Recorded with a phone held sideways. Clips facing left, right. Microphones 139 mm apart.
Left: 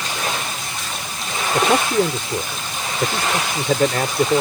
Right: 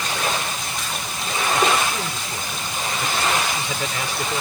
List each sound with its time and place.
1.5 s a man speaking: 70° left (ahead or behind); by 4.4 s 50° left (ahead or behind)